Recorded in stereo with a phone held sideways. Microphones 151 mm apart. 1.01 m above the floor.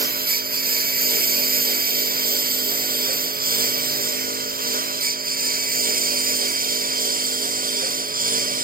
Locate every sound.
0.0 s a lawn mower: 80° right; by 8.7 s 65° right (ahead or behind)